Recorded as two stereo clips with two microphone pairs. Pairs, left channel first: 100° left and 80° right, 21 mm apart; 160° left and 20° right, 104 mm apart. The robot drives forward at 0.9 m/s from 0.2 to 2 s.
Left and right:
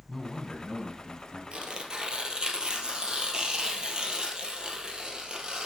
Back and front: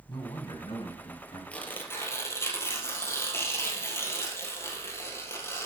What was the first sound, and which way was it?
A man speaking, straight behind.